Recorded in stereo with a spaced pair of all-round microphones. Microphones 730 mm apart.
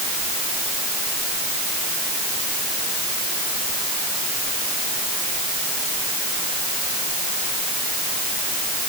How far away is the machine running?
I don't hear a machine running.